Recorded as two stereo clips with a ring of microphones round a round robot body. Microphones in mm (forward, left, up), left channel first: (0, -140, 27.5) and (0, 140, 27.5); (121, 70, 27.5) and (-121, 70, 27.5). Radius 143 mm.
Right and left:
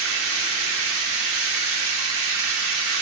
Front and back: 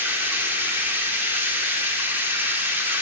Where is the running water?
100° left, 2.0 m.